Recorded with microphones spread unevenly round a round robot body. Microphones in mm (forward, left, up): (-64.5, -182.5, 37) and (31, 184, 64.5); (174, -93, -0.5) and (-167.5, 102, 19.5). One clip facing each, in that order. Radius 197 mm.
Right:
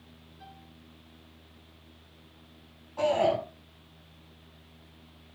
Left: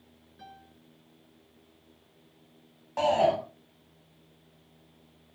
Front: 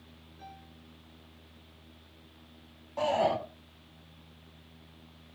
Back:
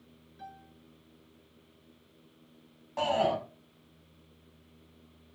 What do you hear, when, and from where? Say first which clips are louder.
0.4 s a piano: left 2 dB, back 2 dB; 90° left, 8 m
3.0 s a shout: even, even; 85° left, 7.5 m